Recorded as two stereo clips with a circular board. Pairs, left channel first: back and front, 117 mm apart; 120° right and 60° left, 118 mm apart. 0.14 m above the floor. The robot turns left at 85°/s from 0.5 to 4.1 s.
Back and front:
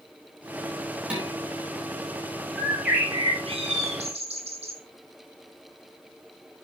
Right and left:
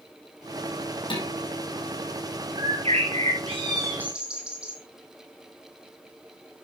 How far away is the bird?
About 3.5 m.